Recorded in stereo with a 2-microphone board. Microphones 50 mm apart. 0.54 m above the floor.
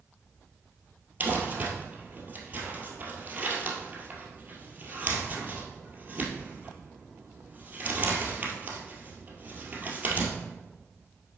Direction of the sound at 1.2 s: 30° right (ahead or behind).